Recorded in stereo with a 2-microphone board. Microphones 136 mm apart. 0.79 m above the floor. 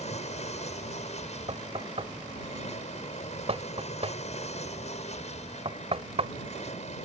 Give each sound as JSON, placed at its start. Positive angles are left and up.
{"t": 0.0, "sound": "an aircraft", "side_deg": 60}
{"t": 1.5, "sound": "knocking", "side_deg": -50}